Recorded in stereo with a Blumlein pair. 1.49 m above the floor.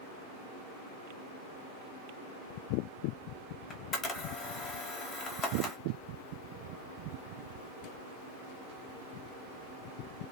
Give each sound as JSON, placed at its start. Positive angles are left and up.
{"t": 3.7, "sound": "a camera shutter", "azimuth_deg": 20, "distance_m": 0.7}